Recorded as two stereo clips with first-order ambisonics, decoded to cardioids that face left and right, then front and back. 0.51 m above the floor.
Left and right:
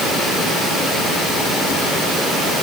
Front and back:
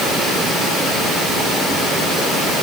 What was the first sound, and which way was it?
Only background noise.